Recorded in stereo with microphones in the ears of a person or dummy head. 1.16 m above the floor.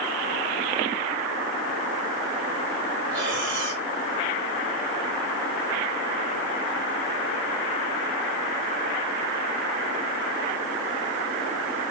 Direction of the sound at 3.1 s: 70° right (ahead or behind).